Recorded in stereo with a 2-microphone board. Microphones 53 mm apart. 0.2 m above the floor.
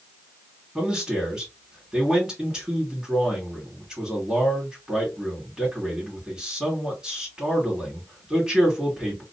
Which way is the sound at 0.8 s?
10° right (ahead or behind).